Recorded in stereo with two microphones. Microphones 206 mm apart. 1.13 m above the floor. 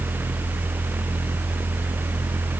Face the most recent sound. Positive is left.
No sound to turn to.